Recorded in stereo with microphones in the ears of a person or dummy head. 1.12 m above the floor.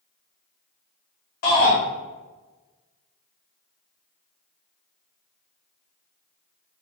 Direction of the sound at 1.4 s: 55° left (ahead or behind).